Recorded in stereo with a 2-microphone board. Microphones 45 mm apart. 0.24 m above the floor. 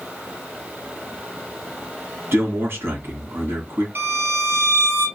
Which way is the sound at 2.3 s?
50° right (ahead or behind).